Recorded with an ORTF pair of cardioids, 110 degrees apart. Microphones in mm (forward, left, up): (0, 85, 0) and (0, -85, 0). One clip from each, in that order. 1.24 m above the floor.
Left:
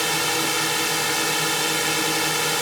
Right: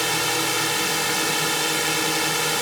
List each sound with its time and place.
0.0 s a drone: straight ahead